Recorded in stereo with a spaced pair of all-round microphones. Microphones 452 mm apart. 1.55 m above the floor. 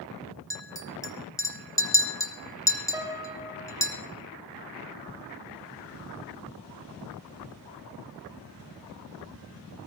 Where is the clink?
5° left (ahead or behind), 1.1 m.